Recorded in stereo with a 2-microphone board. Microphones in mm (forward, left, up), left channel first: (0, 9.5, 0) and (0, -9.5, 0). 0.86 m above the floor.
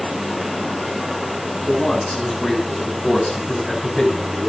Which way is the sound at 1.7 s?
10° left (ahead or behind).